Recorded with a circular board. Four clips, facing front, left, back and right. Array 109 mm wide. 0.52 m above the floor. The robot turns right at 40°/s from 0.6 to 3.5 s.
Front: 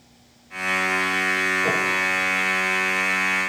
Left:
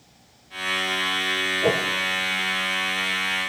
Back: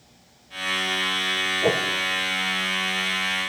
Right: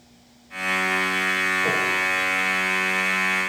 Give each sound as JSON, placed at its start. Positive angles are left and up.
{"t": 1.6, "sound": "a whoosh", "azimuth_deg": 135, "distance_m": 0.9}